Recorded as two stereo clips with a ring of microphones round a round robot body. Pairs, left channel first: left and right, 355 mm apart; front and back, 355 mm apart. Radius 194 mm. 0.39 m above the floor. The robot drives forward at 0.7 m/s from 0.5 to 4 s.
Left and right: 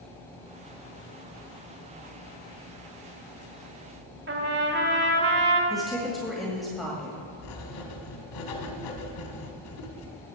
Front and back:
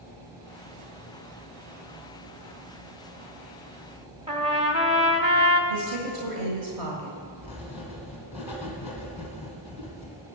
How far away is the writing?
About 1.8 m.